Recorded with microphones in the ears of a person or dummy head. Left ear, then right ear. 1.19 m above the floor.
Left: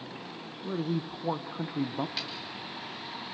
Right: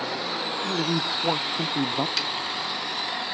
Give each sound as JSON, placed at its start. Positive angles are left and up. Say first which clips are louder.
{"t": 0.6, "sound": "a woman speaking", "louder": "right 6 dB", "side_deg": -75, "distance_m": 0.6}
{"t": 2.2, "sound": "a snare drum", "louder": "right 8 dB", "side_deg": -75, "distance_m": 1.6}